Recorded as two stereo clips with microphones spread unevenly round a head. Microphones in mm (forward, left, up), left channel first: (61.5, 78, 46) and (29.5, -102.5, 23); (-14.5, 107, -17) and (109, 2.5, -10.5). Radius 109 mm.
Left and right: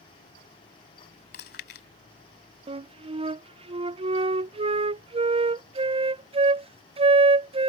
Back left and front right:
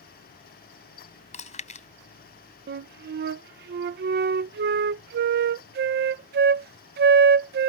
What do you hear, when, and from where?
1.3 s chewing: 105° left
2.7 s a flute: 40° right